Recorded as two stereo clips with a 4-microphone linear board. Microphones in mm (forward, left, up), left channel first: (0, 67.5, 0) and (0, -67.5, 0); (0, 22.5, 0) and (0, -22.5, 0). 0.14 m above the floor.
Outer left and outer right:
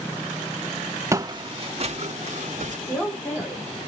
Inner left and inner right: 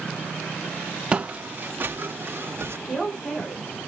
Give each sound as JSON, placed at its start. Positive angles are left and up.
{"t": 1.1, "sound": "footsteps", "side_deg": -20, "distance_m": 0.6}
{"t": 2.9, "sound": "a man speaking", "side_deg": 15, "distance_m": 10.0}